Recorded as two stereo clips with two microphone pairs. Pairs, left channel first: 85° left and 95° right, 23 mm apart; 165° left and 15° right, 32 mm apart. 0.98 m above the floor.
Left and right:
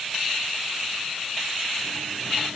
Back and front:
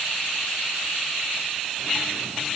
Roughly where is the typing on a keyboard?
No typing on a keyboard in this recording.